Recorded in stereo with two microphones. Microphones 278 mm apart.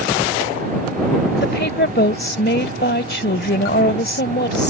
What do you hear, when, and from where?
1.4 s a woman speaking: 40° left (ahead or behind)